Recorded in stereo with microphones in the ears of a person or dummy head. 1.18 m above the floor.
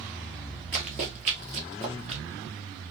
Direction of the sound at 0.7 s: 30° right (ahead or behind).